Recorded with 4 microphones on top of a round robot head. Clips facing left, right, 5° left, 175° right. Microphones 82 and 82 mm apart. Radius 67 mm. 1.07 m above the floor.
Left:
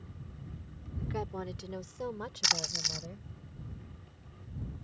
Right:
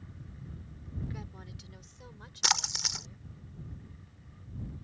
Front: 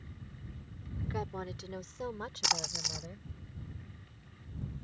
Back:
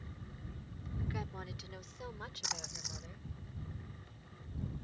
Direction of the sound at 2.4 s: 35° right.